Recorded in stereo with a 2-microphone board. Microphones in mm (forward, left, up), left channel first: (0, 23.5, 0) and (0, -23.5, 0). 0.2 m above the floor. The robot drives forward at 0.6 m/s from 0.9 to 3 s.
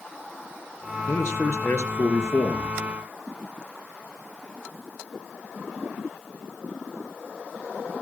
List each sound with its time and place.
1.1 s a man speaking: 65° left (ahead or behind), 3 m; by 2.8 s 70° left (ahead or behind), 2.5 m